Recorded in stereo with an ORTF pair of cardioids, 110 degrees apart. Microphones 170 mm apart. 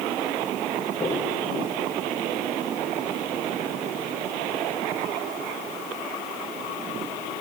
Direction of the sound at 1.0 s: 25° left.